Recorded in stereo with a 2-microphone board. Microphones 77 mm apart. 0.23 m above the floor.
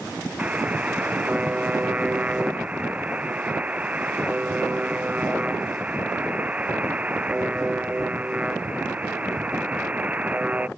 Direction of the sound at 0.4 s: 15° right (ahead or behind).